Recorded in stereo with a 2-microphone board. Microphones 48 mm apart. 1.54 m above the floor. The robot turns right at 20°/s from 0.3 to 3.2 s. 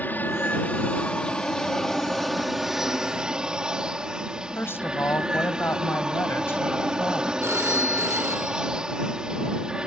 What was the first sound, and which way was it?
An aircraft, 140° left.